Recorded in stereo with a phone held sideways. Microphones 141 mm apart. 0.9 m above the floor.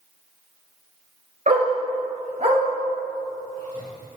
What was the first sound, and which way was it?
A dog barking, 75° right (ahead or behind).